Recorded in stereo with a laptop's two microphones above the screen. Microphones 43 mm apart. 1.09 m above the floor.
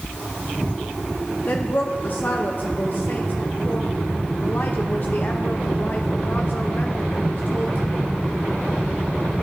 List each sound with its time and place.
1.5 s a woman speaking: 45° left (ahead or behind), 1.1 m